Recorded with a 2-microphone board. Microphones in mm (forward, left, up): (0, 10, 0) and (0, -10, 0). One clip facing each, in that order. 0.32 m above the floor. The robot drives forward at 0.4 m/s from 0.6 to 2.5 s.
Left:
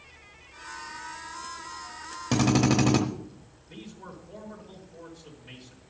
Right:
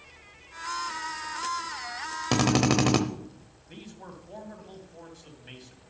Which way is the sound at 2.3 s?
25° right (ahead or behind).